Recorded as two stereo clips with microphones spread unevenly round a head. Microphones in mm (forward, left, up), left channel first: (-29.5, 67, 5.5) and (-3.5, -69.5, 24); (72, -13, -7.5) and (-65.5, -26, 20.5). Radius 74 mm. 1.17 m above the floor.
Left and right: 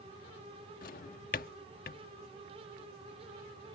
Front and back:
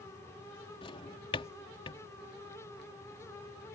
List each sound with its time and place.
0.8 s a drawer: 65° left